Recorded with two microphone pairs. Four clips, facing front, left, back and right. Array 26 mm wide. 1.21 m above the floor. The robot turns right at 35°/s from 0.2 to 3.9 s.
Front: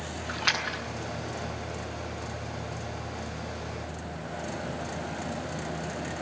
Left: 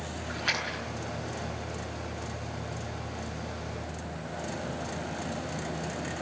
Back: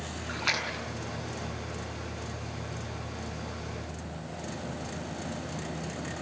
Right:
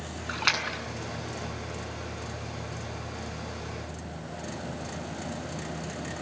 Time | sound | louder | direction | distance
0.3 | a splash | right 4 dB, front 2 dB | 85° right | 7 m